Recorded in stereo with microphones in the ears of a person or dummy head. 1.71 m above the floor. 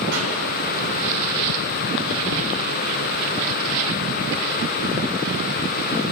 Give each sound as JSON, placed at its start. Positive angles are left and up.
{"t": 0.1, "sound": "a pop", "side_deg": -70, "distance_m": 8.5}